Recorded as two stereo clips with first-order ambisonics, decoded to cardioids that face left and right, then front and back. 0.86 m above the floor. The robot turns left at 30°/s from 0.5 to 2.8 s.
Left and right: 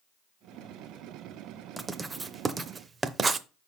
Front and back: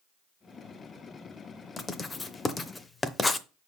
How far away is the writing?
About 0.6 m.